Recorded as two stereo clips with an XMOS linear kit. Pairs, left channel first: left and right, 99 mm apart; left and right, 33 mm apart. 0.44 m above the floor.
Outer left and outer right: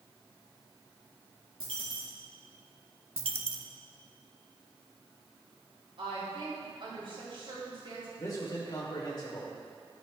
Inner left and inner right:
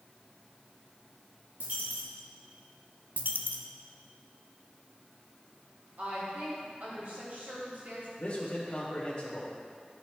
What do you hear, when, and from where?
1.6 s a dropped coin: 70° right (ahead or behind), 3 m
3.2 s a dropped coin: 80° right, 0.7 m
6.0 s a woman speaking: 60° right (ahead or behind), 2.5 m
8.2 s a man speaking: 40° left (ahead or behind), 1.6 m